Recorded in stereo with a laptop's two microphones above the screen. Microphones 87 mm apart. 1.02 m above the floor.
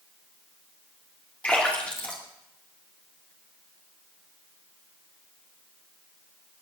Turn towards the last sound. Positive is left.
turn(degrees=20)  # may be behind; listen again after turning